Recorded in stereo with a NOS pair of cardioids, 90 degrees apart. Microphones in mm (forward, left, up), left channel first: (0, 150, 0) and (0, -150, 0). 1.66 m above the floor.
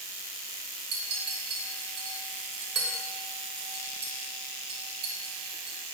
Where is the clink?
50° right, 1.8 m.